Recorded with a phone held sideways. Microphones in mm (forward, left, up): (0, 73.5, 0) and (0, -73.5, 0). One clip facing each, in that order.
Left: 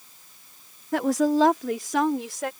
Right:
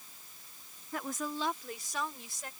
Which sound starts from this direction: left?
A woman speaking, at 0.9 s.